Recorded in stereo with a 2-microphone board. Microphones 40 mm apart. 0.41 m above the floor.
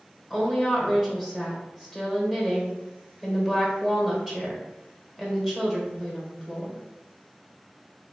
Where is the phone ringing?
No phone ringing in this recording.